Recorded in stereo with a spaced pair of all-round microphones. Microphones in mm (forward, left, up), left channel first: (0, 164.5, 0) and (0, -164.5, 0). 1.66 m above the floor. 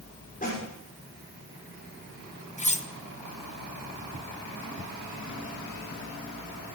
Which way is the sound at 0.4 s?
25° left (ahead or behind).